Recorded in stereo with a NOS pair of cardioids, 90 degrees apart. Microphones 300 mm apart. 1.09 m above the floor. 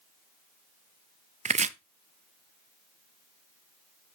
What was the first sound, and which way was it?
Chopping, 25° right.